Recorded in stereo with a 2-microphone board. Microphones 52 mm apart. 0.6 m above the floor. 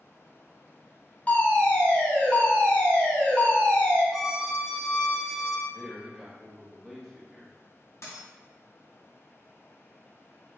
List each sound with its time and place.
1.3 s a fire alarm: 30° left (ahead or behind), 1.6 m
4.1 s a violin: 5° right (ahead or behind), 0.5 m
5.7 s a man speaking: 5° left (ahead or behind), 1.0 m
8.0 s a dropped coin: 65° left (ahead or behind), 1.7 m